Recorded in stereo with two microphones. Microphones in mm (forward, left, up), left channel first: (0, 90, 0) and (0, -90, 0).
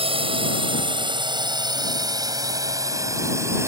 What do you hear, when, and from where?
0.0 s a drone: 30° right (ahead or behind); by 3.7 s 15° right (ahead or behind)